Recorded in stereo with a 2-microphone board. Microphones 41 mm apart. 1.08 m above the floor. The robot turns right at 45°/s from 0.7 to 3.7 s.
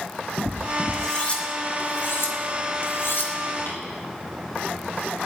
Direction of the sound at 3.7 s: 70° left (ahead or behind).